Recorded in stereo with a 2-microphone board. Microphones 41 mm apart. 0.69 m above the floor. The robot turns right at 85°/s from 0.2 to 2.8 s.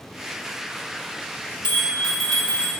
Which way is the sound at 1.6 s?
135° left.